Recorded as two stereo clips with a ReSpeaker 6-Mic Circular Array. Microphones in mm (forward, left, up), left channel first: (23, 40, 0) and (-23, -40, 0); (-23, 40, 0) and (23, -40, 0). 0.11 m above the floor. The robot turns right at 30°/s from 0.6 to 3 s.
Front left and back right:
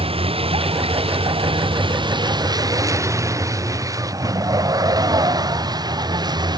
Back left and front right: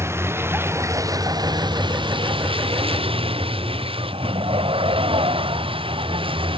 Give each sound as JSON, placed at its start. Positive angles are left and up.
{"t": 0.0, "sound": "a vehicle", "azimuth_deg": -120}